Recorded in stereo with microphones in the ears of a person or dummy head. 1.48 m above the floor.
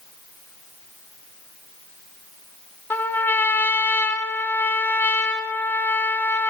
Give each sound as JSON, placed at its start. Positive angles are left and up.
{"t": 2.9, "sound": "a trumpet", "side_deg": 10, "distance_m": 1.6}